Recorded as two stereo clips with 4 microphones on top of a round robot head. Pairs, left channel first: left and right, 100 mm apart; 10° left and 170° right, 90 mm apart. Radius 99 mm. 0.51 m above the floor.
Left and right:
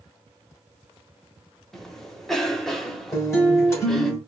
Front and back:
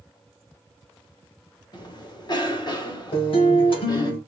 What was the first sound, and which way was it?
A cough, 5° left.